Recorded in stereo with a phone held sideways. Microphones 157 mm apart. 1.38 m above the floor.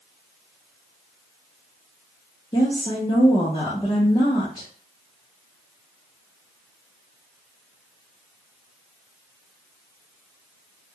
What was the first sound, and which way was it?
A woman speaking, 25° left (ahead or behind).